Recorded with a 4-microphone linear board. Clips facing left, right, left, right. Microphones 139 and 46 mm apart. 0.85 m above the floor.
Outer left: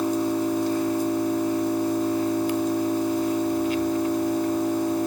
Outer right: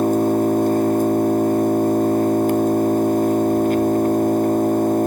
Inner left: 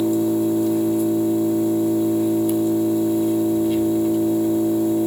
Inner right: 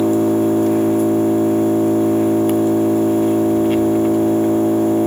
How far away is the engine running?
About 0.8 m.